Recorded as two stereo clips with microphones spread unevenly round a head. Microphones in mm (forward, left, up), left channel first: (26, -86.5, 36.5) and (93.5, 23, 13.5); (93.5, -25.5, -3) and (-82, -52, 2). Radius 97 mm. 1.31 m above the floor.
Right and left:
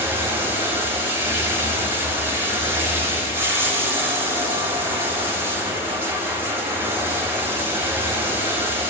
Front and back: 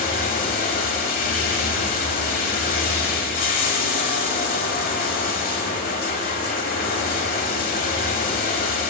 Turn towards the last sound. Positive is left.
turn(degrees=-15)